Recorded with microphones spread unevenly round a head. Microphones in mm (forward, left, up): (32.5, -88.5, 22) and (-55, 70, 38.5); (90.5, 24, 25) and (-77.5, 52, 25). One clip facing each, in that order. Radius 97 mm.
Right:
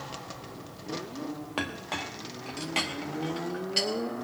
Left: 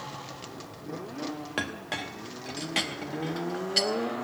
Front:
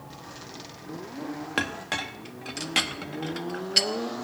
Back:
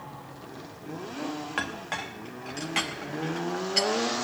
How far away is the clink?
About 1.0 m.